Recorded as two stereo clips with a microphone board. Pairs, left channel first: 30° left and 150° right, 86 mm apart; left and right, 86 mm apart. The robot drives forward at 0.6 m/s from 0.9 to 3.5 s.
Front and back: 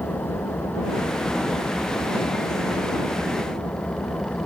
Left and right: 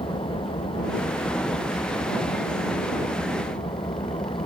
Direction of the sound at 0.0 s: 100° left.